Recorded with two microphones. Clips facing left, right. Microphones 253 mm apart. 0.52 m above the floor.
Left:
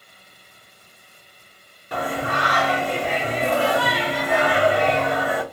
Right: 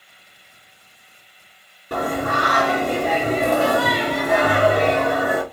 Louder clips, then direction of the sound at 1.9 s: Right 3 dB; 45° right (ahead or behind).